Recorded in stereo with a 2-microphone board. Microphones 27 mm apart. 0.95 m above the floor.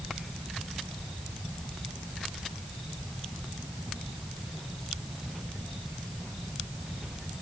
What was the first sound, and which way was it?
Only background noise.